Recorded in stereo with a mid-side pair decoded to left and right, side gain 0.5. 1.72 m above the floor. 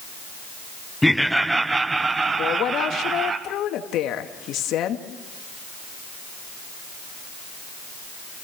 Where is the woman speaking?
70° left, 2.5 m.